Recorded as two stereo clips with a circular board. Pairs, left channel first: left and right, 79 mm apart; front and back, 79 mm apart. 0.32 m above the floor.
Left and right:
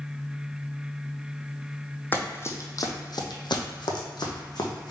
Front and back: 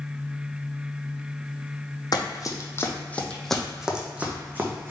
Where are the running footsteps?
25° left, 0.8 m; by 4.9 s 120° left, 1.2 m.